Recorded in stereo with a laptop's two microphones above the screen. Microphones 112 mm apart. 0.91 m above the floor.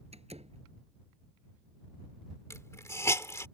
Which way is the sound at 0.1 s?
65° right (ahead or behind).